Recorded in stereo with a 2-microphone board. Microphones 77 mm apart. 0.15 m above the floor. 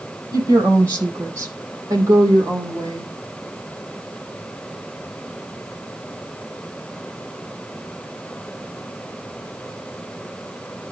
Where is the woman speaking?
45° right (ahead or behind), 6 m; by 3.1 s 55° right (ahead or behind), 7 m.